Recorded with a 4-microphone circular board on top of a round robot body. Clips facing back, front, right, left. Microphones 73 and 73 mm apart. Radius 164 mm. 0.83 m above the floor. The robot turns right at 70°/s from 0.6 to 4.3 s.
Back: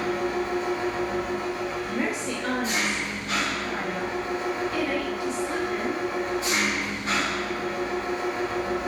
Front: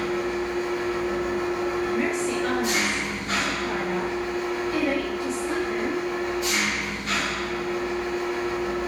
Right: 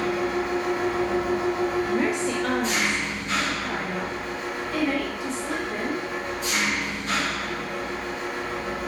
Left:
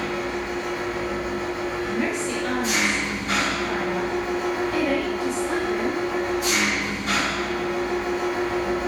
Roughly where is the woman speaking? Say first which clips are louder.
Front 4 dB, right 1 dB; behind right.